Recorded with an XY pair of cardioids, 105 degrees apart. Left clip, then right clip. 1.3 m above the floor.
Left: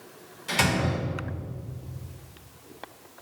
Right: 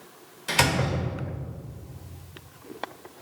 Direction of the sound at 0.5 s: 35° right.